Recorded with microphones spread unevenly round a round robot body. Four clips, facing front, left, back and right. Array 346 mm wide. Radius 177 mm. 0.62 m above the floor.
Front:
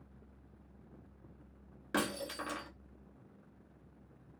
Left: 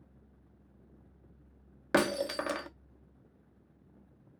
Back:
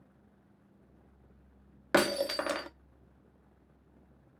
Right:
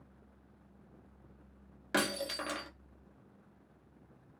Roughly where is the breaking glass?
Behind left.